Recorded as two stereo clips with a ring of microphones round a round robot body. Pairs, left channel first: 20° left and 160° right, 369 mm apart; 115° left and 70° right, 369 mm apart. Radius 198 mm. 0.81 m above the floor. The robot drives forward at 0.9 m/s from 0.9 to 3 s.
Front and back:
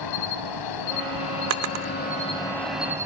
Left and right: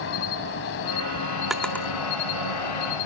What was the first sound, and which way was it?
An insect, 55° left.